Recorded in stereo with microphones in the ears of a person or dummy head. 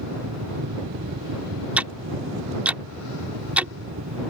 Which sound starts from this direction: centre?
Ticking, at 1.8 s.